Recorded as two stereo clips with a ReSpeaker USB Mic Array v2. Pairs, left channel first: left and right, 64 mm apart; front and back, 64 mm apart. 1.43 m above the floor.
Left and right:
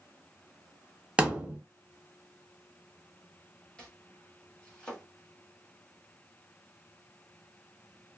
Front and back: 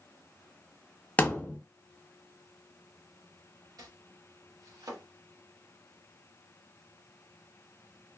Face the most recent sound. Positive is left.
turn(degrees=165)